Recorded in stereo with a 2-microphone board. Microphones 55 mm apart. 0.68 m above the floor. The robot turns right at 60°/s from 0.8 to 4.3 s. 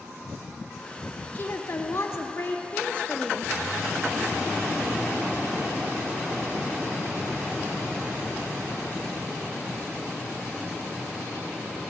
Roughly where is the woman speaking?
Ahead left.